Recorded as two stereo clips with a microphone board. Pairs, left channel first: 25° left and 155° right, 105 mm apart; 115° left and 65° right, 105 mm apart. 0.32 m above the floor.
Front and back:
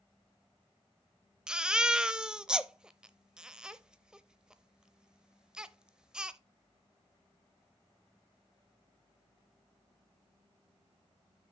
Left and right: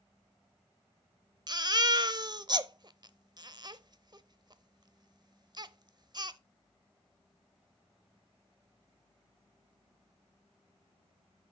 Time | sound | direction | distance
1.5 | a baby crying | 80° right | 0.5 m